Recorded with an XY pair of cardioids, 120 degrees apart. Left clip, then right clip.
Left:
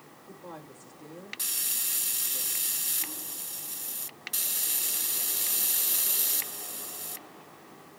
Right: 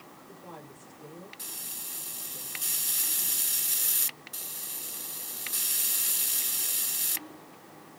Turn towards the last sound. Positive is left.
turn(degrees=30)